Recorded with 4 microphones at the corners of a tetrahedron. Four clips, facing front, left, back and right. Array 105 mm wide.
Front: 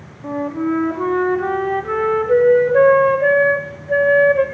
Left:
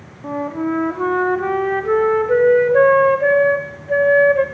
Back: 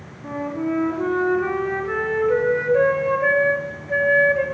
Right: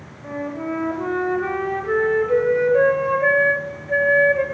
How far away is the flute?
About 0.9 m.